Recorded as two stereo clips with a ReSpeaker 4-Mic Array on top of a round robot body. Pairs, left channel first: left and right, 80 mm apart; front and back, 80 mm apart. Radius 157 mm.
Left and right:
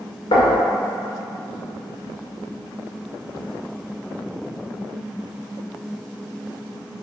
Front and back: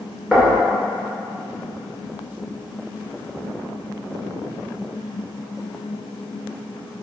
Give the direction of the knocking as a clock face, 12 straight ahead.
9 o'clock.